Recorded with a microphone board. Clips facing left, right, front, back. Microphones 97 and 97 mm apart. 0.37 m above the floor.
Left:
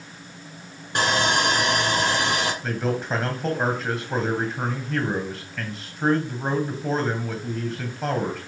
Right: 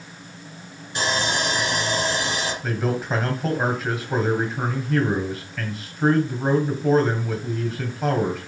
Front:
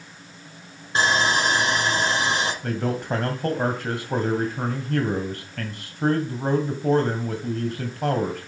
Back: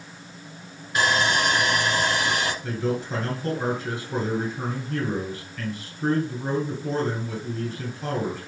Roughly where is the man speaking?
Ahead.